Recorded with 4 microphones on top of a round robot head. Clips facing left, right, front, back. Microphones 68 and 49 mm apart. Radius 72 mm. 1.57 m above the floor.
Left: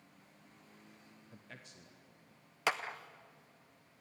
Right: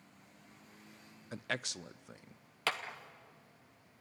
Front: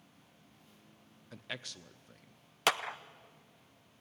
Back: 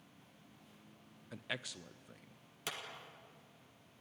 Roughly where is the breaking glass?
No breaking glass in this recording.